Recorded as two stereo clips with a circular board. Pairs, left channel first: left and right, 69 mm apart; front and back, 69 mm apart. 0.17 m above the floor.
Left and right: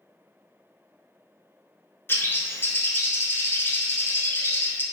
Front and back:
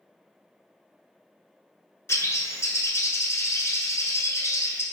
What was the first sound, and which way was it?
A bird, 40° left.